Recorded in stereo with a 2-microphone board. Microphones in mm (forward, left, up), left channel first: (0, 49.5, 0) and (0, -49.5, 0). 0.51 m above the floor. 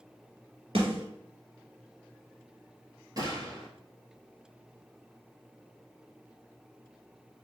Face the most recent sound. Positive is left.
turn(degrees=-35)  # may be behind; listen again after turning